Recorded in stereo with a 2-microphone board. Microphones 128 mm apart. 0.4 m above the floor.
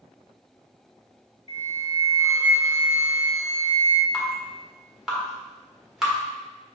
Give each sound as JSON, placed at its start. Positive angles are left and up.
{"t": 1.5, "sound": "a flute", "side_deg": 50, "distance_m": 0.6}
{"t": 4.1, "sound": "dripping", "side_deg": -5, "distance_m": 1.3}